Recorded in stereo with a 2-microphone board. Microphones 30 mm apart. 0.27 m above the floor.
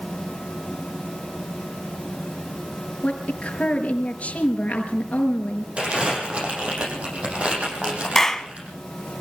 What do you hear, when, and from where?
3.0 s a woman speaking: 45° left (ahead or behind), 5 m
5.8 s crumpling: 45° right (ahead or behind), 8 m
8.2 s a clap: 15° left (ahead or behind), 1.5 m